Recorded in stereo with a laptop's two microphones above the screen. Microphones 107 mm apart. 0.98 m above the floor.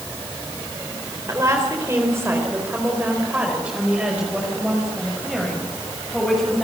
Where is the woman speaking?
30° right (ahead or behind), 4 m; by 6.6 s centre (ahead or behind), 6 m.